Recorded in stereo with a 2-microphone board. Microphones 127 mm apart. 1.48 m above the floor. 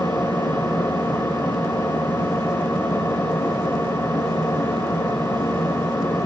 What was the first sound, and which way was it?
An engine running, 20° left (ahead or behind).